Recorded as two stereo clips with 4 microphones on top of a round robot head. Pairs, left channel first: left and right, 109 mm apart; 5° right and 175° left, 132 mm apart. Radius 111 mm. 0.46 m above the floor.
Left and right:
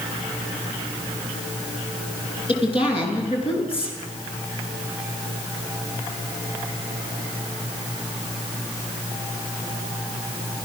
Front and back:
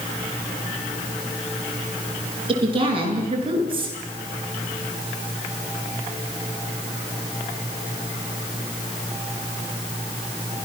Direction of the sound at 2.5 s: 125° left.